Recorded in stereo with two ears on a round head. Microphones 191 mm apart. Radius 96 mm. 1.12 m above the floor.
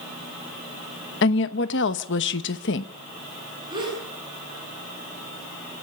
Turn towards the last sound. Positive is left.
turn(degrees=-20)  # may be behind; listen again after turning